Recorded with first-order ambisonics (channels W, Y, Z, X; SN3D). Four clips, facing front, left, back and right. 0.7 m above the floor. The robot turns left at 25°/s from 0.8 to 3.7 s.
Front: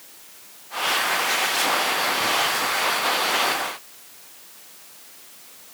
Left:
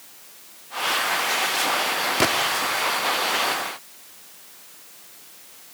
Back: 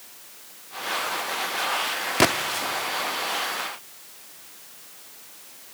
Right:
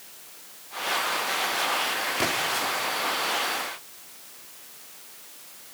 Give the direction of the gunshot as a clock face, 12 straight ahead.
7 o'clock.